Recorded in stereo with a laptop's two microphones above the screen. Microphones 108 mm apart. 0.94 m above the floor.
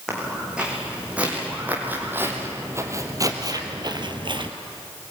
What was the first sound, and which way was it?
Footsteps, 5° right (ahead or behind).